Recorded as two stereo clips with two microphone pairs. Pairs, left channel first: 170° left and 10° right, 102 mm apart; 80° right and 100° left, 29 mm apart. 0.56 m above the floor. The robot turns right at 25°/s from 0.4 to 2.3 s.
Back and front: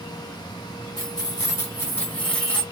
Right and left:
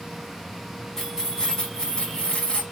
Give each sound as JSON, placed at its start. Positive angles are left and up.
{"t": 1.0, "sound": "keys jangling", "azimuth_deg": -150, "distance_m": 1.5}